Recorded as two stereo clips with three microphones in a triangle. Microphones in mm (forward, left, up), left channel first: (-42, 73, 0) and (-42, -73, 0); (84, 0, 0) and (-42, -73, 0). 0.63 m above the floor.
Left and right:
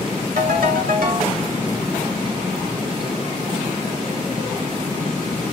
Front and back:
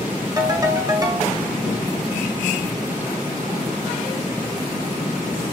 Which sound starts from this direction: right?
A ringtone, at 0.4 s.